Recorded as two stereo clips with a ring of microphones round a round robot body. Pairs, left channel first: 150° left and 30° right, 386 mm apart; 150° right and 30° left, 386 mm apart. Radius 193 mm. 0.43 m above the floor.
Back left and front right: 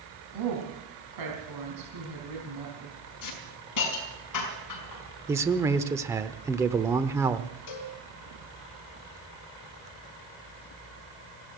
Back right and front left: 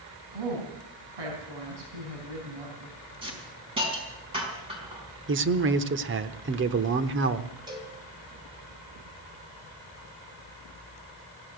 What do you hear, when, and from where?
0.3 s a woman speaking: 5° left, 3.5 m
3.2 s a hiss: 105° left, 4.5 m
5.3 s a man speaking: 45° left, 0.8 m
7.7 s a cowbell: 110° left, 3 m